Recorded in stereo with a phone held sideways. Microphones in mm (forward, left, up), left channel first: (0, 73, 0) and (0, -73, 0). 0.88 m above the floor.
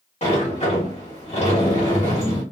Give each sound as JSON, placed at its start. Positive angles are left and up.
{"t": 0.2, "sound": "a sliding door", "side_deg": 50, "distance_m": 1.4}